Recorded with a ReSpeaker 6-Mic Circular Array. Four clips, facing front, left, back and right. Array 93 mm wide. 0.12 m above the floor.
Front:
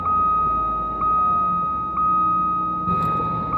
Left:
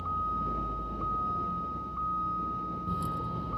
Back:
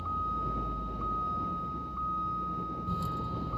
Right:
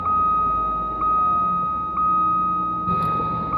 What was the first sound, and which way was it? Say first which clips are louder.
A vehicle: right 13 dB, front 15 dB; 45° right.